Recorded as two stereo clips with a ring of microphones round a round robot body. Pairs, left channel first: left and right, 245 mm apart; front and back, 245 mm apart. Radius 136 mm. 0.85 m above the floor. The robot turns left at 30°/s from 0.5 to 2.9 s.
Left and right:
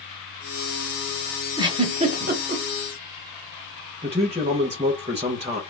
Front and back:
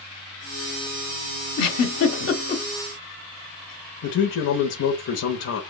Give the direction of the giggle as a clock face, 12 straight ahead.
1 o'clock.